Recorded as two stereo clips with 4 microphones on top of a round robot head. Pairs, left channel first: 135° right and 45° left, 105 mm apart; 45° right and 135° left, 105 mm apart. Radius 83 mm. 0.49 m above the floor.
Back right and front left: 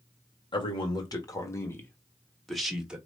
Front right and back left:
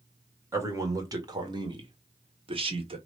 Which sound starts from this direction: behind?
A man speaking, at 0.5 s.